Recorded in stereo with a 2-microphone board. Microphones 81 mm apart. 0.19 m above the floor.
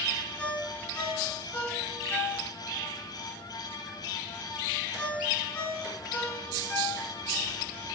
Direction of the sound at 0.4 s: 15° left (ahead or behind).